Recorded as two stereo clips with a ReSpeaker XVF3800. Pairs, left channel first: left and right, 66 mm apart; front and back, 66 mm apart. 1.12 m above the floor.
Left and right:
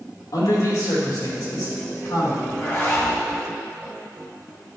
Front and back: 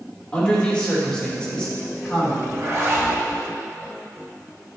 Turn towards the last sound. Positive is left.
turn(degrees=140)